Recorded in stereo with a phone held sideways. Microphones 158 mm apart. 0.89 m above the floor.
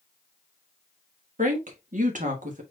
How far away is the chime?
I don't hear a chime.